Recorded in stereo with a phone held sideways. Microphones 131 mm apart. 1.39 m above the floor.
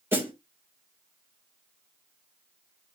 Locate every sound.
0.1 s a snare drum: 15° right (ahead or behind), 2.5 m